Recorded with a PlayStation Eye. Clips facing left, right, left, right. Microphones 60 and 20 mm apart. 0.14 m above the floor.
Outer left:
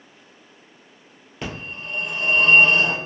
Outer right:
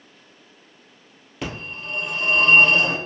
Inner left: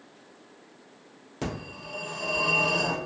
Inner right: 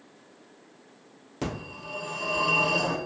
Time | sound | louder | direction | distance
1.4 | a phone ringing | outer right 1 dB, inner right 1 dB | centre (ahead or behind) | 1.8 m